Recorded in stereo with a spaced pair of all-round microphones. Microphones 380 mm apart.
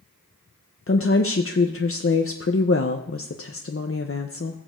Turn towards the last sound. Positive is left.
turn(degrees=35)  # may be behind; listen again after turning